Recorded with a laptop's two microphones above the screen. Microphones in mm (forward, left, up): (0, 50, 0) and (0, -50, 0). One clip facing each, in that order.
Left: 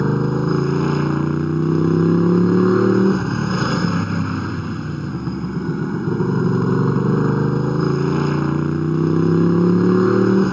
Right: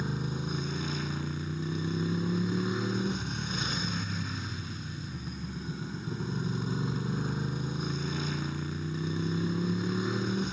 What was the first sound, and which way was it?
A motorcycle, 65° left (ahead or behind).